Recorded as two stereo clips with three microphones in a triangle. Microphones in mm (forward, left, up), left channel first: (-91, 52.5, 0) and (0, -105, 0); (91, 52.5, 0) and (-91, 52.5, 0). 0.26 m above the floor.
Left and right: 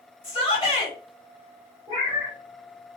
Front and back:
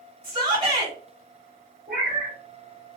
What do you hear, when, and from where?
0.2 s a shout: 140° left, 1.3 m
1.9 s a cat meowing: 170° right, 1.4 m